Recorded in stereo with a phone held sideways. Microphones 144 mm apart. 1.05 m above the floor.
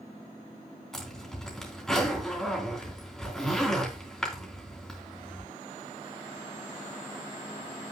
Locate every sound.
0.9 s a zipper: 5° left (ahead or behind), 3.5 m